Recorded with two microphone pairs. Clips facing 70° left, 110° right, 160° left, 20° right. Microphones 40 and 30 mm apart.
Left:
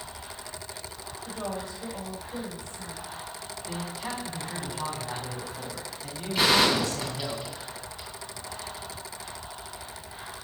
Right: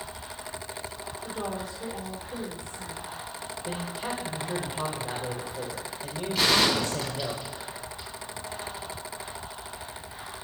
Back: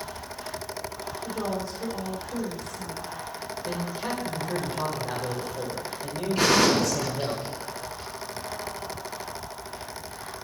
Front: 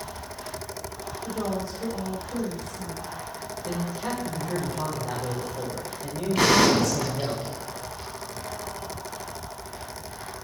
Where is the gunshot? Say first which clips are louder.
Left 1 dB, front 2 dB; 20° right, 4 m.